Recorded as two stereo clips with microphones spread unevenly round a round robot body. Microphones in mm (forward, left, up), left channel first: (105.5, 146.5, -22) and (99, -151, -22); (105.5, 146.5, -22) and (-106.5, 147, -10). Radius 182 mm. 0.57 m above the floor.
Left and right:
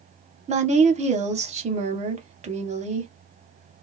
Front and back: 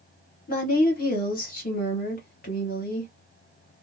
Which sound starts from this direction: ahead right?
A woman speaking, at 0.5 s.